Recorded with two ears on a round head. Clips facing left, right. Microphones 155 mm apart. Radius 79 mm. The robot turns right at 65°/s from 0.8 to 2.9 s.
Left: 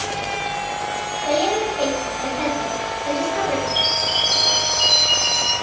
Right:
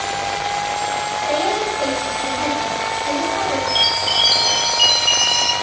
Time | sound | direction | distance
1.2 | a woman speaking | 20° left | 1.8 m
3.7 | a chime | 30° right (ahead or behind) | 0.7 m